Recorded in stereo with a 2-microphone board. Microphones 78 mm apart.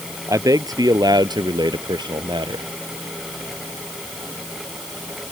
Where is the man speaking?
45° right (ahead or behind); by 2.7 s 70° right (ahead or behind).